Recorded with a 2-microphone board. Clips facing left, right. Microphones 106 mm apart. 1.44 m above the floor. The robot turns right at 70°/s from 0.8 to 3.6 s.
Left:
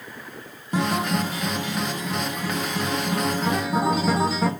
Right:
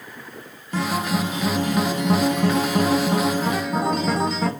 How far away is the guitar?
About 1.1 m.